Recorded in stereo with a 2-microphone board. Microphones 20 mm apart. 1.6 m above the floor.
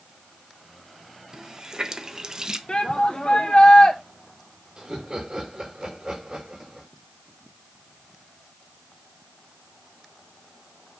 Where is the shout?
50° left (ahead or behind), 0.8 m.